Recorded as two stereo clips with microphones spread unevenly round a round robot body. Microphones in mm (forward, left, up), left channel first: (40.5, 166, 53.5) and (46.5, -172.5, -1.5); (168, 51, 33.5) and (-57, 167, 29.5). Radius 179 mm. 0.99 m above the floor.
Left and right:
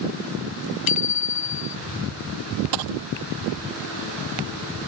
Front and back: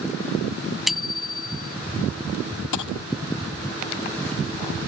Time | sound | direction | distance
0.9 | a bicycle bell | 65° left | ?
2.7 | a dropped coin | 65° right | ?